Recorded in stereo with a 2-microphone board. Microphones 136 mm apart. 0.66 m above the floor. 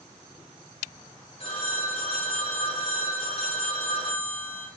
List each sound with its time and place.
1.4 s a phone ringing: 45° left (ahead or behind), 6.5 m